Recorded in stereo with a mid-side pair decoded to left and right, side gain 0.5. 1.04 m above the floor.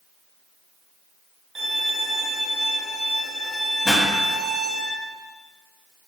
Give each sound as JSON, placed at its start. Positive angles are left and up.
{"t": 1.6, "sound": "a violin", "azimuth_deg": -10, "distance_m": 1.8}
{"t": 3.9, "sound": "a pop", "azimuth_deg": 35, "distance_m": 1.6}